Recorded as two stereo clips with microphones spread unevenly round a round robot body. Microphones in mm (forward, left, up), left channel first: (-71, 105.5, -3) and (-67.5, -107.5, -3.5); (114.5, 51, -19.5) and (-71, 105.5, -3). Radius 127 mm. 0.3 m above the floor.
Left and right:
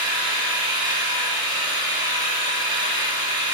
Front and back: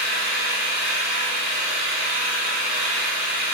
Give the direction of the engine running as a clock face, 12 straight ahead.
5 o'clock.